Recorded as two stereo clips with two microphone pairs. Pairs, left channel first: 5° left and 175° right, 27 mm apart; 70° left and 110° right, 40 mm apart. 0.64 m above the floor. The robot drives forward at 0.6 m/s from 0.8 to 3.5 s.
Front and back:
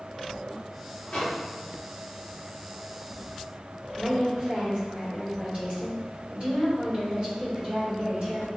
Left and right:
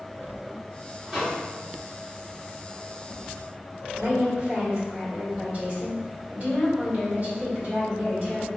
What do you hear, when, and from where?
1.1 s a microwave: 35° right, 1.6 m; by 1.4 s 40° right, 1.5 m
4.0 s a woman speaking: 140° right, 1.8 m